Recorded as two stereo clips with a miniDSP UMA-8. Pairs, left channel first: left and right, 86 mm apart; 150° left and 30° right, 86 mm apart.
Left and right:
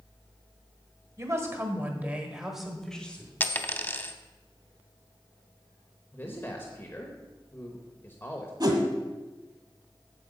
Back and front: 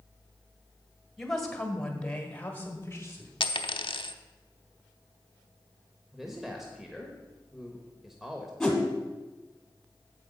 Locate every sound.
1.2 s a woman speaking: 125° right, 1.7 m; by 3.3 s 145° left, 1.4 m
3.4 s a dropped coin: 155° left, 0.6 m
6.1 s a man speaking: 55° left, 0.9 m
8.6 s a whoosh: 125° right, 1.6 m